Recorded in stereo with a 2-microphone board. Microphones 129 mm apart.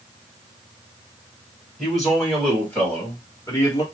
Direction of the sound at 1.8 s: Centre (ahead or behind).